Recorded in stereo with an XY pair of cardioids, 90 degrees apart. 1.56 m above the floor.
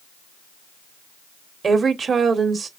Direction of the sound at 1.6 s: 45° right.